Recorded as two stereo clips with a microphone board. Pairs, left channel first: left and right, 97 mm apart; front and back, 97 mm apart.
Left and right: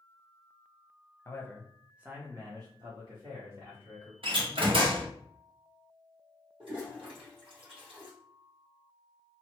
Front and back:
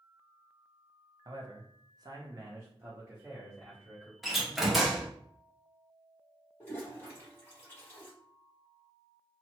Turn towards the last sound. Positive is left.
turn(degrees=-65)